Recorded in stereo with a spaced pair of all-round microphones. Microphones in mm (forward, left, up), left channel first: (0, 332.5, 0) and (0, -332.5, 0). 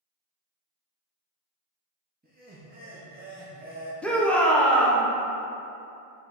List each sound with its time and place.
2.2 s laughter: 15° right (ahead or behind), 0.6 m
4.0 s a shout: centre (ahead or behind), 0.5 m